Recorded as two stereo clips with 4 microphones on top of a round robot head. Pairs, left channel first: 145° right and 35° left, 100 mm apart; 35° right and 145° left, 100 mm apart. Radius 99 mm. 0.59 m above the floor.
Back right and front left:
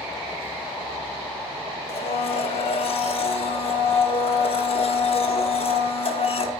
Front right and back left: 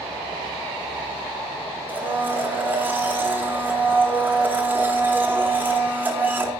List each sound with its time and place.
1.9 s a blender: 140° right, 1.4 m